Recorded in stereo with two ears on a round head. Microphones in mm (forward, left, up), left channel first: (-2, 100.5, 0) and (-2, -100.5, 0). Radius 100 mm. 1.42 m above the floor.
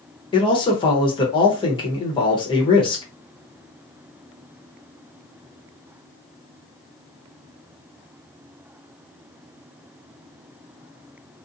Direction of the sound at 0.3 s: 25° left (ahead or behind).